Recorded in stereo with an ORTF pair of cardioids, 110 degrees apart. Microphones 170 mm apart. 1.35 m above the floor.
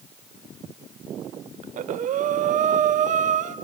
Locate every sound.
1.6 s breathing: 50° right, 0.7 m